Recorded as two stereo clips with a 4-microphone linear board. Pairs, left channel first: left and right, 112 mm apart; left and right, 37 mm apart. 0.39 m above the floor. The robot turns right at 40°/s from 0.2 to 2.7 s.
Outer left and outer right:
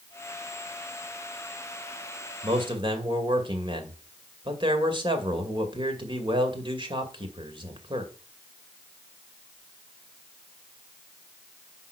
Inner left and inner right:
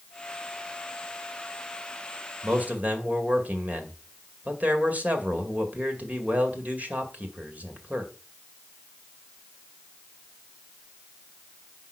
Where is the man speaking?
45° right (ahead or behind), 2.0 m; by 8.1 s 40° right (ahead or behind), 2.0 m.